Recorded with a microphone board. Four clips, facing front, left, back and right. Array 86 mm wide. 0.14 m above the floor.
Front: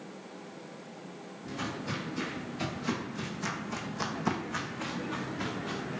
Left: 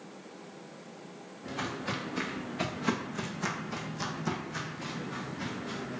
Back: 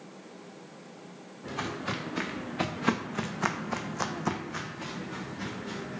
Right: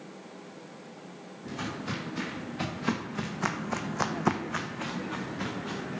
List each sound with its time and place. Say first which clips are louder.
1.4 s footsteps: even, back 3 dB; 165° left, 1.7 m; by 6.0 s 55° right, 1.5 m